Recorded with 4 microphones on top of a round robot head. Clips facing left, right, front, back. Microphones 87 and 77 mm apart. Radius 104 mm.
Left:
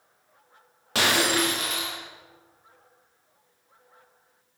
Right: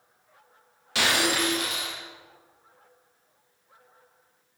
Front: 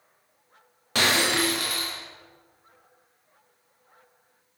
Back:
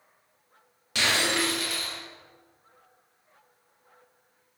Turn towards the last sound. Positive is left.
turn(degrees=45)